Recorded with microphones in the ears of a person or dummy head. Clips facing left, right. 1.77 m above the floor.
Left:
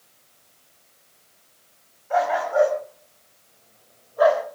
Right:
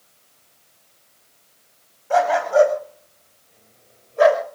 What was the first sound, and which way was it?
A dog barking, 45° right (ahead or behind).